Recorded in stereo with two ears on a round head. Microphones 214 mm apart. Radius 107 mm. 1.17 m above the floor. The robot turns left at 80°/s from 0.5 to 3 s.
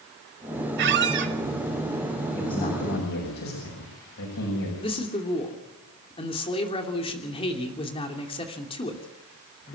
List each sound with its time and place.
0.8 s a squeak: 70° right, 1.3 m; by 1.3 s 115° right, 1.3 m
2.4 s a man speaking: 170° left, 6.5 m; by 4.7 s 115° left, 6.5 m
4.8 s a man speaking: 25° left (ahead or behind), 3 m